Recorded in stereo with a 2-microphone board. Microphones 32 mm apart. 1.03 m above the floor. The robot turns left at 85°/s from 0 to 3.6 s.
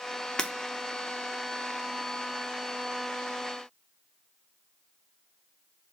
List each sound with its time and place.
0.4 s breaking glass: 25° left (ahead or behind), 0.6 m; by 0.5 s 30° left (ahead or behind), 0.6 m